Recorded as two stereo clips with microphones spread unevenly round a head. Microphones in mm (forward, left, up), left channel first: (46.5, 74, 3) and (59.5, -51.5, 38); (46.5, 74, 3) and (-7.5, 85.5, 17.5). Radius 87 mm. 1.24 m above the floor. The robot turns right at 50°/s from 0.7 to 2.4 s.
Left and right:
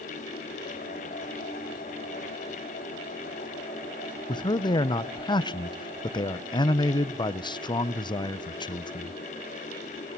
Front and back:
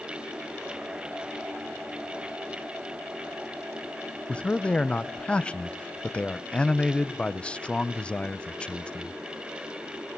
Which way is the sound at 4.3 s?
50° left.